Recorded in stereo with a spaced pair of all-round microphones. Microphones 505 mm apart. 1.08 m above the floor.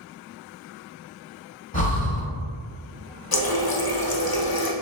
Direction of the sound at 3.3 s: 45° left (ahead or behind).